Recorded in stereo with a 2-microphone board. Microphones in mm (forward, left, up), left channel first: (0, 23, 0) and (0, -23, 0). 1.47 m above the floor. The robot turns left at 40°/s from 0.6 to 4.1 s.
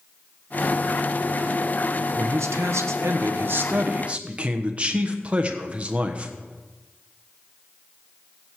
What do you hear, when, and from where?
2.2 s a man speaking: 75° right, 1.1 m; by 6.3 s 150° right, 1.1 m